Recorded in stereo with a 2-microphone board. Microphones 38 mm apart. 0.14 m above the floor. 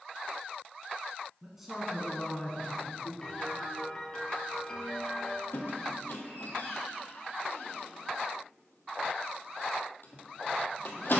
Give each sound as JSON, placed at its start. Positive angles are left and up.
{"t": 1.4, "sound": "a man speaking", "side_deg": -20, "distance_m": 1.1}
{"t": 3.2, "sound": "a piano", "side_deg": 15, "distance_m": 1.3}
{"t": 5.5, "sound": "a squeak", "side_deg": 65, "distance_m": 1.2}